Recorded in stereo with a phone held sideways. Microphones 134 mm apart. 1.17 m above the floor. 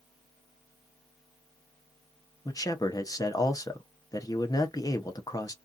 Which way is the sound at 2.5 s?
25° left (ahead or behind).